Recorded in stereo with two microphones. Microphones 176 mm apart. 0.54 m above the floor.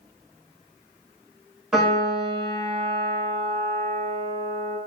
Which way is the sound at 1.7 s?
5° right (ahead or behind).